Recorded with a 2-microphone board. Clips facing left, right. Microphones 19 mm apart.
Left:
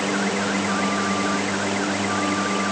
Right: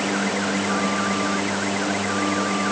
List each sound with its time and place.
Only background noise.